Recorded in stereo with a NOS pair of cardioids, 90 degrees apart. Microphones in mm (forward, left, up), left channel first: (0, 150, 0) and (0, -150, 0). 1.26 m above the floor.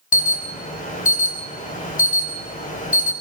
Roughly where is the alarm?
Ahead left.